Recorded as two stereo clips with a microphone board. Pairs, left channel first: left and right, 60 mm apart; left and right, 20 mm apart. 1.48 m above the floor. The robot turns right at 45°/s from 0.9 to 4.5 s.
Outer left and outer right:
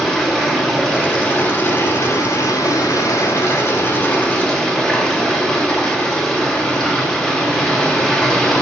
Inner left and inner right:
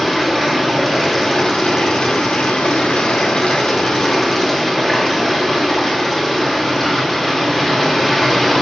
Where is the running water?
5° left, 2 m; by 8.6 s 170° left, 2 m.